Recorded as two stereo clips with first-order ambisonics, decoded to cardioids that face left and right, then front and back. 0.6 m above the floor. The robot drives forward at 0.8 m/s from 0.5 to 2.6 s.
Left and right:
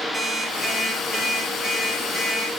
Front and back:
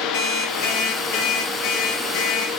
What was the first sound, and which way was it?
An alarm clock, 5° left.